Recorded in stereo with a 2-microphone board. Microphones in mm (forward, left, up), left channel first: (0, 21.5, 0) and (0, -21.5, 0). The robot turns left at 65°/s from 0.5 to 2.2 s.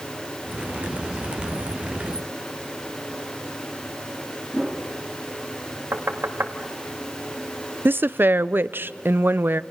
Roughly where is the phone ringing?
No phone ringing in this recording.